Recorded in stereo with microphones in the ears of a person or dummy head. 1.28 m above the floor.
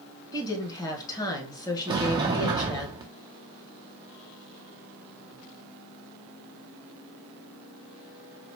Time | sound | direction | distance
0.3 | a woman speaking | 20° left (ahead or behind) | 1.5 m
1.9 | a sliding door | 20° right (ahead or behind) | 0.7 m